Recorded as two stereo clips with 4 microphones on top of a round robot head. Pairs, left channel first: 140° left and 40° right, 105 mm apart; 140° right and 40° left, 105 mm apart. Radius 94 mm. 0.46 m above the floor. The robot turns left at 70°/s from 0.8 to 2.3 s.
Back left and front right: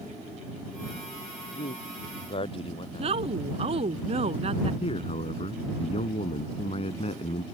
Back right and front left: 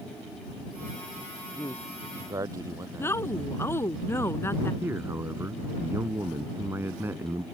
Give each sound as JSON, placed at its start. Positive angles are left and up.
{"t": 1.5, "sound": "a man speaking", "azimuth_deg": 155}
{"t": 3.0, "sound": "a woman speaking", "azimuth_deg": -70}
{"t": 4.8, "sound": "a man speaking", "azimuth_deg": 110}